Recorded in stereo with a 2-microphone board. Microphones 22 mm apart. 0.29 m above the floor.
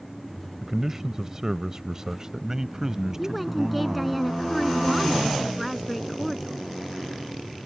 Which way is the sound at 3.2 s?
10° right (ahead or behind).